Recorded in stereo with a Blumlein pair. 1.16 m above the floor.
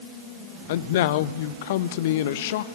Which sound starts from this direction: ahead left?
A man speaking, at 0.7 s.